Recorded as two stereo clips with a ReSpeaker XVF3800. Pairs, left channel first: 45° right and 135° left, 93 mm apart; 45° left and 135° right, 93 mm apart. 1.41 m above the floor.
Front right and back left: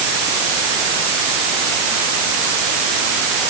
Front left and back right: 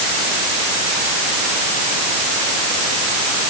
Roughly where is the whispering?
No whispering in this recording.